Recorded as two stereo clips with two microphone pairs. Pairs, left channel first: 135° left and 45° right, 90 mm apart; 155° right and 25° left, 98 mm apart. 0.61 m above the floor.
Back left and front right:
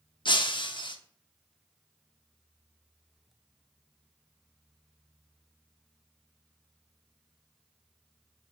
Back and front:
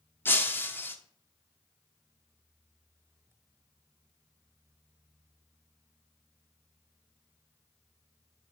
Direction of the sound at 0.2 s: 135° left.